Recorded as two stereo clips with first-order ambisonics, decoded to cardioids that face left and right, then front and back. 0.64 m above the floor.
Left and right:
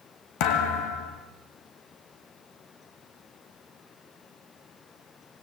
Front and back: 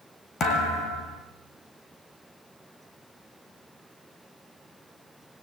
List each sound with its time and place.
0.4 s a thud: 65° left, 3.5 m